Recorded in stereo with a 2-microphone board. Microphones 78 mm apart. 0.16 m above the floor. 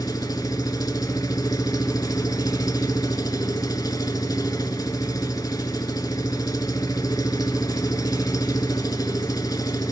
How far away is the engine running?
About 0.9 m.